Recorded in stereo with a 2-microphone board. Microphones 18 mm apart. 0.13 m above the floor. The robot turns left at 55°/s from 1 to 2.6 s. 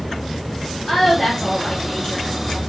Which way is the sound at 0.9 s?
120° left.